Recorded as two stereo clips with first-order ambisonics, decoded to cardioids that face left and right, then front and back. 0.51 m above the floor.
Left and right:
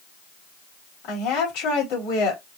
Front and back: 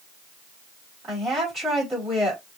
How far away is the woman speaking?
About 2.5 m.